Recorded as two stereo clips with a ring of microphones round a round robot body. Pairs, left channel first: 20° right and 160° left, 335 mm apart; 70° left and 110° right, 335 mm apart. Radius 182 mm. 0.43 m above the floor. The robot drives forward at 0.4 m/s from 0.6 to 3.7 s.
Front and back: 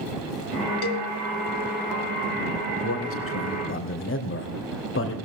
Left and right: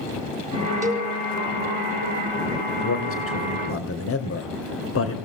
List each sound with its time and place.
0.8 s a cowbell: 30° right, 3 m; by 1.1 s 35° right, 3 m
2.8 s a man speaking: 20° left, 3 m; by 5.2 s 25° left, 2.5 m